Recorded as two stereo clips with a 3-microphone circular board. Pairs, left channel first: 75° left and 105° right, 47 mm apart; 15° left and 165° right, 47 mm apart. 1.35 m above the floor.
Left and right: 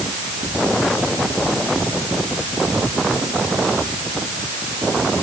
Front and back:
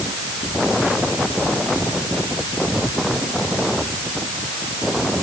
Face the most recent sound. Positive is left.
No sound to turn to.